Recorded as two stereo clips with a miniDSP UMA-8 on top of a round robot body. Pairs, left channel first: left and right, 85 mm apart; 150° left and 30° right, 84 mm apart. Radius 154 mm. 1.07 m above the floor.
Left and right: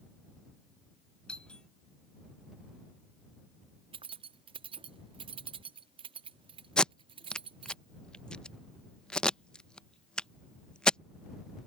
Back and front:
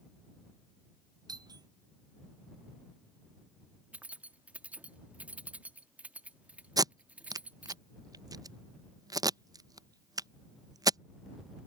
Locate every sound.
1.3 s a doorbell: 10° left
3.9 s keys jangling: 105° right
6.8 s tape being pulled: 10° left